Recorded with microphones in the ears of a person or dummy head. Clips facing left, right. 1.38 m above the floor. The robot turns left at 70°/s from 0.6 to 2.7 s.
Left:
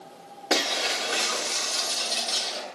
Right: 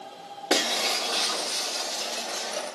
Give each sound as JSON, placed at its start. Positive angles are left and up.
{"t": 0.5, "sound": "breaking glass", "azimuth_deg": -170, "distance_m": 3.0}